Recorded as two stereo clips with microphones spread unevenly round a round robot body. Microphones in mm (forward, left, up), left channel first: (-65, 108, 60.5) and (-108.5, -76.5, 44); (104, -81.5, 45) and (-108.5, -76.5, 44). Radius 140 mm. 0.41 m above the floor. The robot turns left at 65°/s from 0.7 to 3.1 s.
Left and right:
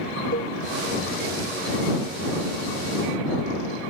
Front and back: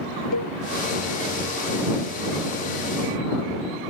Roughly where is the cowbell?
Ahead.